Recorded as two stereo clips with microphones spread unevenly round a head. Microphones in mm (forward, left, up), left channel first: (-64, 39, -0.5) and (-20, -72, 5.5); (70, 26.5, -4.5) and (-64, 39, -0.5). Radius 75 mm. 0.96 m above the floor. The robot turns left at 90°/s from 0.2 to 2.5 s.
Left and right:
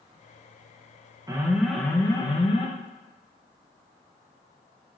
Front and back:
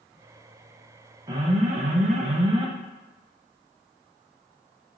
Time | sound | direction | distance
1.3 | an alarm | 120° right | 0.7 m